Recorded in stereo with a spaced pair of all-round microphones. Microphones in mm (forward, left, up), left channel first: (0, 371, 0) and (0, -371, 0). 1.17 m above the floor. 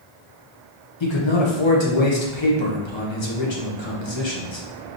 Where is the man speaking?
40° left (ahead or behind), 1.0 m.